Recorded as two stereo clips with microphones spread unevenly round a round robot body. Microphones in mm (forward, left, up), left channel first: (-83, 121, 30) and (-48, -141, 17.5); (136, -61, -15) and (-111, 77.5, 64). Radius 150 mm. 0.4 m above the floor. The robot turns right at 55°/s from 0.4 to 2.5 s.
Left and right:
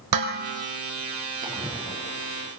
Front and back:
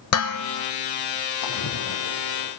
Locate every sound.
0.1 s dishes clattering: 65° right, 4 m; by 0.7 s 50° right, 4 m
1.4 s a splash: 20° right, 4 m; by 2.5 s 40° left, 4 m